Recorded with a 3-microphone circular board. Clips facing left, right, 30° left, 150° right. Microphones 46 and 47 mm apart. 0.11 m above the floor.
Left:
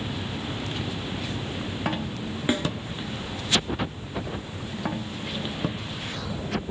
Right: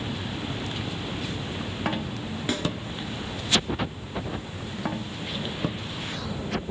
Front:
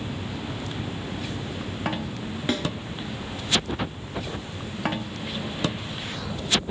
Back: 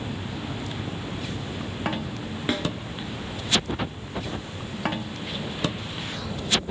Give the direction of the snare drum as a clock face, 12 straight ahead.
7 o'clock.